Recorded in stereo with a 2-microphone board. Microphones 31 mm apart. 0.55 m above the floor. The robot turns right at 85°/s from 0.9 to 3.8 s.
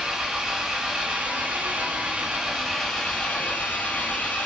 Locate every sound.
0.0 s an engine running: 165° right, 1.5 m; by 4.5 s 85° left, 1.5 m